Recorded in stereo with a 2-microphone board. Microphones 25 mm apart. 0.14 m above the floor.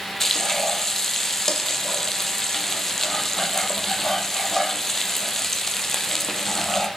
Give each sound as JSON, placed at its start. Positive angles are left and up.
{"t": 0.2, "sound": "frying", "side_deg": 15, "distance_m": 1.0}